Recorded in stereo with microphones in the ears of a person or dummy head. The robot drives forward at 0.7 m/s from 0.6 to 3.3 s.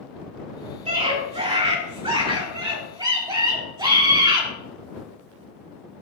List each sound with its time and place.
0.8 s a scream: 35° right (ahead or behind), 3.5 m; by 4.5 s 25° right (ahead or behind), 5 m